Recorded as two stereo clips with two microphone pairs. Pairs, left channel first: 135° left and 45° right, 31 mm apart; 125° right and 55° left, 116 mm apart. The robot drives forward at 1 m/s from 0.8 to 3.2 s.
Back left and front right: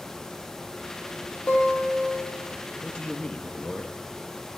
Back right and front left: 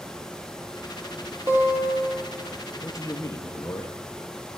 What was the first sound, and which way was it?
A guitar, 125° left.